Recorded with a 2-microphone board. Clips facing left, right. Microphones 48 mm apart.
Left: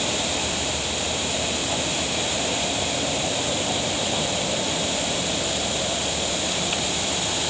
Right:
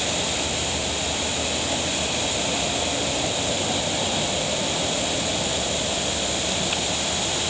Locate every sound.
Only background noise.